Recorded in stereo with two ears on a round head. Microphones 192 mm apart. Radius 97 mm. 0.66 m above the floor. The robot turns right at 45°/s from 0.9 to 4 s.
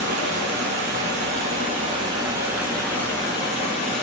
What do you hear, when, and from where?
0.0 s running water: 85° right, 0.8 m; by 4.0 s 55° left, 0.8 m